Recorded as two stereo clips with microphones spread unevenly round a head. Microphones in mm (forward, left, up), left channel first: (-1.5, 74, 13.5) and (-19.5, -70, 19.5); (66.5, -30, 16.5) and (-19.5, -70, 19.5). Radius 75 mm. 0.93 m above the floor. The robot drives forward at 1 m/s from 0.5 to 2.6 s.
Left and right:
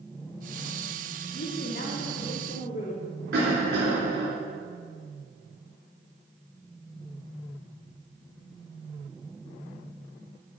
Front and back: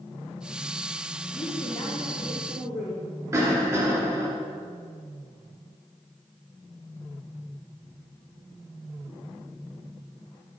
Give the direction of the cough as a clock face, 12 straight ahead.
3 o'clock.